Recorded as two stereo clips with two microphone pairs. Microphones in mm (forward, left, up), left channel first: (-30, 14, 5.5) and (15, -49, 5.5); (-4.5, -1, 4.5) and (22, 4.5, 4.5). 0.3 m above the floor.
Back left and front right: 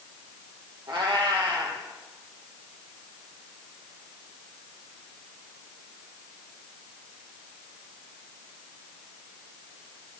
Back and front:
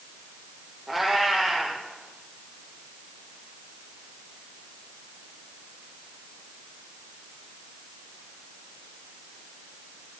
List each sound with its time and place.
0.9 s a cat meowing: 65° right, 3 m